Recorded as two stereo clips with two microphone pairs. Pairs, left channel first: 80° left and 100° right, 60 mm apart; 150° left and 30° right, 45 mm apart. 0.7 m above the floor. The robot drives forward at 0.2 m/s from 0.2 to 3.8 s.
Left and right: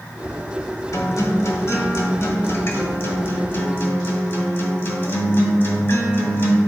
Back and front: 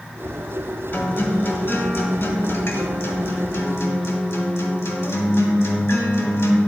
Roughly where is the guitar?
Left.